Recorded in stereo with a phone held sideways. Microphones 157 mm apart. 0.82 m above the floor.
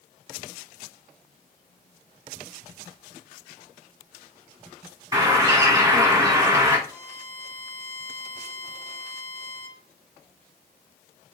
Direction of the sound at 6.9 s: 65° right (ahead or behind).